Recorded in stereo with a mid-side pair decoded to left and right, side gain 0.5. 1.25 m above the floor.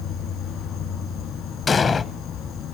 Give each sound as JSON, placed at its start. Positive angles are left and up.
{"t": 0.0, "sound": "an insect", "azimuth_deg": 65, "distance_m": 1.9}
{"t": 1.7, "sound": "an explosion", "azimuth_deg": 35, "distance_m": 0.7}